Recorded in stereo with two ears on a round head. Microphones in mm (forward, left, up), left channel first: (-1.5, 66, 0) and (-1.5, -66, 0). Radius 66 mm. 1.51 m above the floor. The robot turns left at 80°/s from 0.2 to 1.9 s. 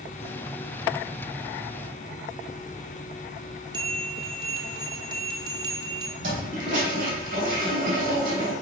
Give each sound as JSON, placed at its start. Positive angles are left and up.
{"t": 3.7, "sound": "a bell", "side_deg": -30, "distance_m": 1.2}
{"t": 6.2, "sound": "a toilet flushing", "side_deg": -60, "distance_m": 3.0}